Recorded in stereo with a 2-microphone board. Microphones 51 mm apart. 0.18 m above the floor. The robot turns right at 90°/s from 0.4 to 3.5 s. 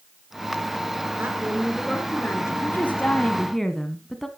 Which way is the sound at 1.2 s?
50° right.